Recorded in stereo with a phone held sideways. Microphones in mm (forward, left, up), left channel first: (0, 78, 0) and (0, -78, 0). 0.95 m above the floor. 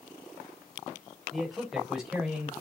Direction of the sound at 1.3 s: Centre (ahead or behind).